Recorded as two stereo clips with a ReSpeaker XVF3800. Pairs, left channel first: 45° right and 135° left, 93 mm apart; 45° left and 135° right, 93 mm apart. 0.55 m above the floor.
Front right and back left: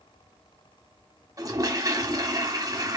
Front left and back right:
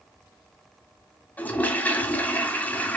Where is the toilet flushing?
110° left, 1.4 m.